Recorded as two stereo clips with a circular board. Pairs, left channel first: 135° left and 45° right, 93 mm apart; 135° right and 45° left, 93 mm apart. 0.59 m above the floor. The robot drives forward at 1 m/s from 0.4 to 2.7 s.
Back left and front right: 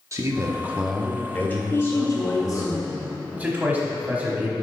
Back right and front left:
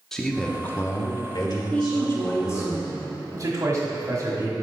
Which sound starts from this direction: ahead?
A man speaking, at 3.3 s.